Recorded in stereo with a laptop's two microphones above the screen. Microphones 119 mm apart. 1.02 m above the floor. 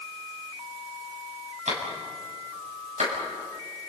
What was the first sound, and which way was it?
A clap, 70° right (ahead or behind).